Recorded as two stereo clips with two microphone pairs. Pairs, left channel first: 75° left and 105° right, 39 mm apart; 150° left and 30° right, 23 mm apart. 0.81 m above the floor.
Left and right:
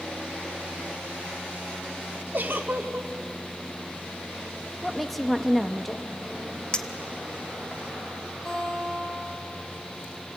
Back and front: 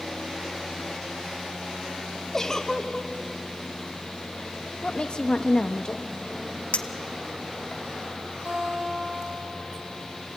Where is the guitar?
Straight ahead, 8.5 m.